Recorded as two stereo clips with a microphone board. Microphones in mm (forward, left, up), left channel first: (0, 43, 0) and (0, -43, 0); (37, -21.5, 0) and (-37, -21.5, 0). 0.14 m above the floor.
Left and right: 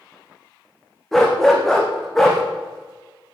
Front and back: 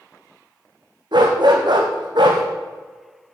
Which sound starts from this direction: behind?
A dog barking, at 1.1 s.